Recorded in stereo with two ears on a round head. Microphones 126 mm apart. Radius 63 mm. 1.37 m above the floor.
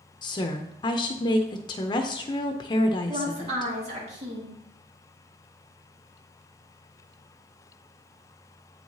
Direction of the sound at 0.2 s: 30° left (ahead or behind).